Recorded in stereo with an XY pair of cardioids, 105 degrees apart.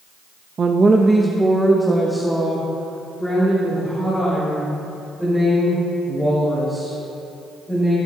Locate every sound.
0.6 s a woman speaking: 40° right, 0.5 m; by 8.0 s 10° left, 5.5 m